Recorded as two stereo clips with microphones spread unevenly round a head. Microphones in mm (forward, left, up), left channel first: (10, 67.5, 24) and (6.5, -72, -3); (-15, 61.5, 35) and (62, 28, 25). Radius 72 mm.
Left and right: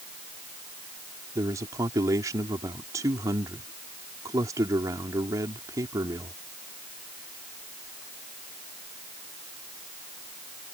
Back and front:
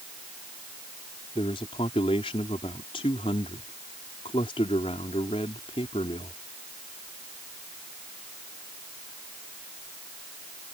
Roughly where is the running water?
I don't hear running water.